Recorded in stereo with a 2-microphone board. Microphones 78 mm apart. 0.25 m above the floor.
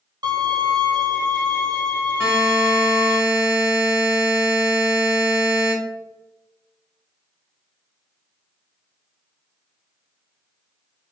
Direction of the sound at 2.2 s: 25° right (ahead or behind).